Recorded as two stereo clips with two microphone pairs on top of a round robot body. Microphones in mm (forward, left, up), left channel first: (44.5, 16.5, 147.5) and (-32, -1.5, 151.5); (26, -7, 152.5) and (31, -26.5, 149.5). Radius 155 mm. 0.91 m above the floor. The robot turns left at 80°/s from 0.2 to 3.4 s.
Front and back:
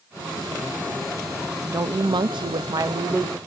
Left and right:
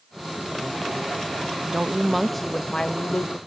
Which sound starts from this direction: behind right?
A woman speaking, at 1.7 s.